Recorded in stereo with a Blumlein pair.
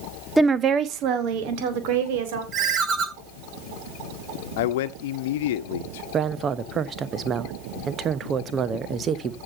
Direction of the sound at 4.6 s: 55° left.